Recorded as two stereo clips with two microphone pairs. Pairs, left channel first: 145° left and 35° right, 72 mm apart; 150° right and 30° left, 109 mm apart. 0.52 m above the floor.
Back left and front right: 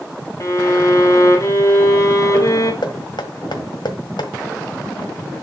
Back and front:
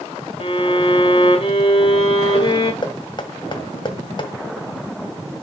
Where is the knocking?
160° left, 1.5 m.